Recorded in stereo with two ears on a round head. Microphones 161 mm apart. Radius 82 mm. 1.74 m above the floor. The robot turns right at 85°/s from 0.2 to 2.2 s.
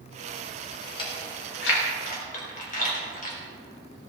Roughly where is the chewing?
Left.